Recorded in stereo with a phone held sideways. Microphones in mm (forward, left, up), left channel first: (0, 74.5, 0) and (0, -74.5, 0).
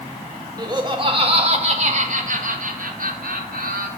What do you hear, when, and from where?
0.6 s laughter: 25° right (ahead or behind), 1.8 m; by 3.9 s 75° right (ahead or behind), 2.5 m